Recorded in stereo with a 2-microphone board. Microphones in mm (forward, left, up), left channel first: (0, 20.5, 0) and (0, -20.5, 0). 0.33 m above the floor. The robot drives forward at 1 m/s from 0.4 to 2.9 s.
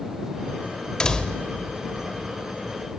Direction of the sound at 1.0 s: 20° left (ahead or behind).